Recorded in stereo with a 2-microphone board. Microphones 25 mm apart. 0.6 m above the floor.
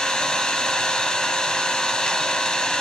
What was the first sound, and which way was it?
An engine running, 35° left (ahead or behind).